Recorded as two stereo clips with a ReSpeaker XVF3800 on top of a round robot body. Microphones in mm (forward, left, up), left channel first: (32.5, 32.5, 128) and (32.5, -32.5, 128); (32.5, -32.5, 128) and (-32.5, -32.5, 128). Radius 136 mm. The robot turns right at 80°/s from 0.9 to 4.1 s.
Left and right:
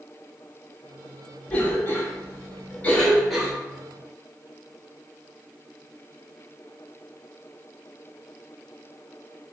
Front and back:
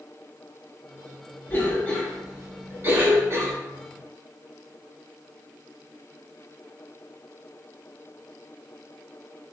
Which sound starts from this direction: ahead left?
A cough, at 1.5 s.